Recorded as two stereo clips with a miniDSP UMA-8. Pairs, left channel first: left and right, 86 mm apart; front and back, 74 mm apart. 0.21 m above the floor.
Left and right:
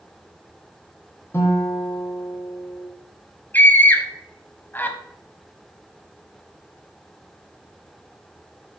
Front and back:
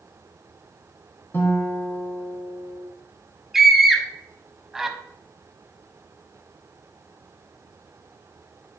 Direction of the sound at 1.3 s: 45° left.